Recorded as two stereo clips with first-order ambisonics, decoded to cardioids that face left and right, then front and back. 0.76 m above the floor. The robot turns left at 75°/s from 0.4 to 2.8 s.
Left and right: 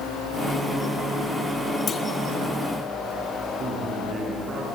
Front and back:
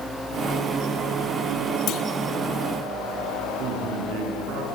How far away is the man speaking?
About 7 m.